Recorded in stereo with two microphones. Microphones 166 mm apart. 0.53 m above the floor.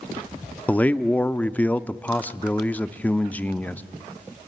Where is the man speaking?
10° left (ahead or behind), 0.6 m.